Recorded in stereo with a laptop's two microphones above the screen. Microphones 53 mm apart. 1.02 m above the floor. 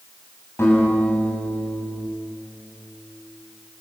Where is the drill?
No drill in this recording.